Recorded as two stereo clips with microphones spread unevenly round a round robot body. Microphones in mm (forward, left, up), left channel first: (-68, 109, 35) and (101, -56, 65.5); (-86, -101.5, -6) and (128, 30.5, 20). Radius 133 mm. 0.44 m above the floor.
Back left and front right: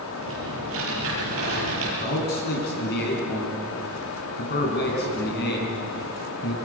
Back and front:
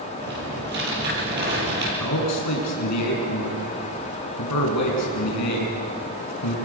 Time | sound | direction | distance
0.2 | typing on a keyboard | 15° right | 9.5 m
2.0 | a man speaking | 175° right | 5 m